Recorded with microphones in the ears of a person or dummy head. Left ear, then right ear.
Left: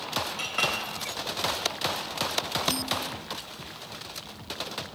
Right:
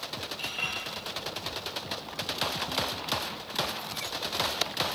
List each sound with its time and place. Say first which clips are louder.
0.4 s a clink: left 4 dB; 65° left (ahead or behind), 2.5 m